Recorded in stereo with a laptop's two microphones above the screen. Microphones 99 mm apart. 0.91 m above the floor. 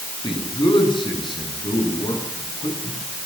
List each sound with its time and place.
0.2 s a man speaking: 50° left (ahead or behind), 10 m; by 3.0 s 55° left (ahead or behind), 13 m